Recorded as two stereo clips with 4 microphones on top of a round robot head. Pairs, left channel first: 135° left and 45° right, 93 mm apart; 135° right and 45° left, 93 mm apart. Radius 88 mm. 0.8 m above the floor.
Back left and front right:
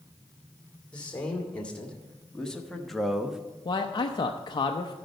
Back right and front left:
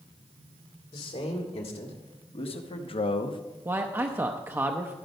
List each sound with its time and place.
0.9 s a man speaking: 150° right, 2.5 m; by 3.4 s 125° right, 0.7 m
3.6 s a man speaking: 105° left, 0.7 m